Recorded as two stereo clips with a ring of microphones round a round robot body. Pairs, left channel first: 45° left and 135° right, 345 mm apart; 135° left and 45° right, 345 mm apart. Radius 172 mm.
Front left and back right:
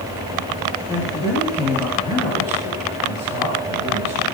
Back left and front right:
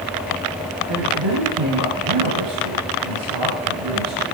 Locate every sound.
0.9 s a man speaking: 30° right, 6 m